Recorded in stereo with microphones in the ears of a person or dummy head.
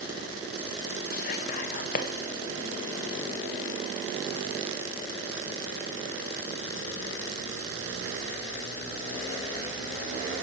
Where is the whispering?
50° left (ahead or behind), 0.6 m.